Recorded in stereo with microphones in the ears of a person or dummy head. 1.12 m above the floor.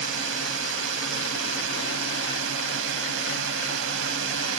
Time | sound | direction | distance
0.0 | a drone | 70° right (ahead or behind) | ?